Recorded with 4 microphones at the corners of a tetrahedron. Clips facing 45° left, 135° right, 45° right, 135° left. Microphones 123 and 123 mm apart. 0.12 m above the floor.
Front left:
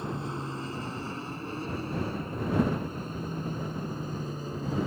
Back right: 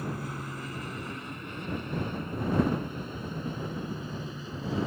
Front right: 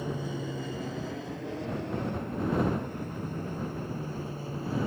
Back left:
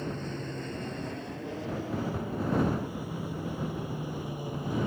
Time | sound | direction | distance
0.0 | an aircraft | 25° left | ?